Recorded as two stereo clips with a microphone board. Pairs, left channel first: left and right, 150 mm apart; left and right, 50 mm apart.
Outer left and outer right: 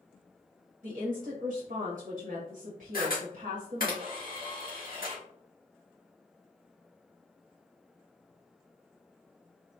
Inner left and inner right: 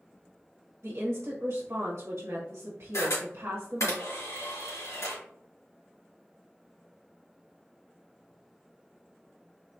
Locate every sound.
0.8 s a woman speaking: 60° right (ahead or behind), 1.0 m
2.9 s a camera shutter: 75° left (ahead or behind), 1.6 m